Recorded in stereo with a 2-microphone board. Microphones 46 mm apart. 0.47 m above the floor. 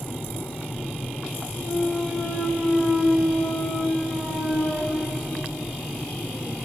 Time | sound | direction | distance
1.5 | a clunk | 10° left (ahead or behind) | 2.0 m